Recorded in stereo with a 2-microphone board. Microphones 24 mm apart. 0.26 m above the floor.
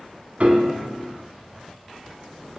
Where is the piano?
45° right (ahead or behind), 1.2 m.